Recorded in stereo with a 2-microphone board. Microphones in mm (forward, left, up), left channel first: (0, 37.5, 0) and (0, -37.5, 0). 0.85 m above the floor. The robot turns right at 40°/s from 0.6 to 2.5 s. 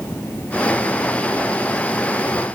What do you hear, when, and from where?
Only background noise.